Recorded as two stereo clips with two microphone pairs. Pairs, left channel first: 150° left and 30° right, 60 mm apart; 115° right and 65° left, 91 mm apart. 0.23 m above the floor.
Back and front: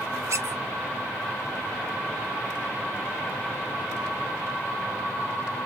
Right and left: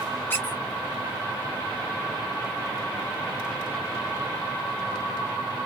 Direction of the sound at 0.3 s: 50° right.